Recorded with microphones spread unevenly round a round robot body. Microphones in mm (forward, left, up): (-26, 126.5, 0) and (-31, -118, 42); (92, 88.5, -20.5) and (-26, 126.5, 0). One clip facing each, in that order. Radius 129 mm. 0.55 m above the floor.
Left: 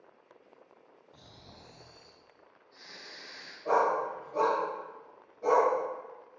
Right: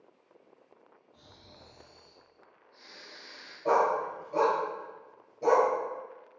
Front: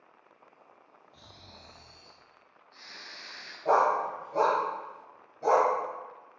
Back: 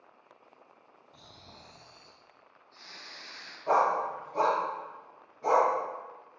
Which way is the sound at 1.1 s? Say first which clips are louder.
Left 1 dB, even; 105° left.